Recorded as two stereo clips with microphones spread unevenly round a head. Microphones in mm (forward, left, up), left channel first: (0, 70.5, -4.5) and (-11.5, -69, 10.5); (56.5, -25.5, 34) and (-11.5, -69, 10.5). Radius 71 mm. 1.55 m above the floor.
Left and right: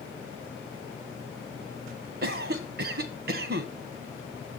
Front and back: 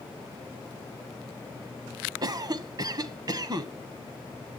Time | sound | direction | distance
2.2 | a cough | 115° right | 1.3 m